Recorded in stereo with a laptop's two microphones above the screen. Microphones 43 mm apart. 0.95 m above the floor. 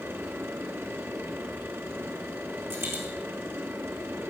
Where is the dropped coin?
75° right (ahead or behind), 5 m.